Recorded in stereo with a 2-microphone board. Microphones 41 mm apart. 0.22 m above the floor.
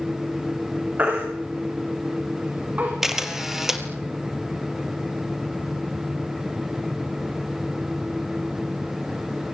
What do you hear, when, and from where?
1.0 s a baby crying: 40° right (ahead or behind), 9 m
3.0 s a camera shutter: 10° right (ahead or behind), 3 m